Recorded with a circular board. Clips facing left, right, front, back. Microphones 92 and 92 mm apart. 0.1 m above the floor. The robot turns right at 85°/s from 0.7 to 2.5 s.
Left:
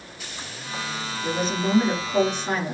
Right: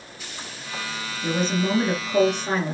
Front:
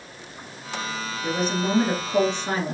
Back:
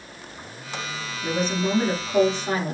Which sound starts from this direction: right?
A woman speaking, at 1.2 s.